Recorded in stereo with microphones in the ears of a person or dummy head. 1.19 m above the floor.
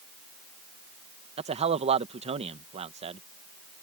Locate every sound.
1.4 s a man speaking: 30° right (ahead or behind)